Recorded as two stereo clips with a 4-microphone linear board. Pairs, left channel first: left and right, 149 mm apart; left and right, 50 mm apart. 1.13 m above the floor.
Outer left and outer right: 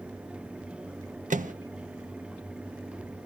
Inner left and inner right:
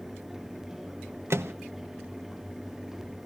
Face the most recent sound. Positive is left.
turn(degrees=-60)  # may be behind; listen again after turning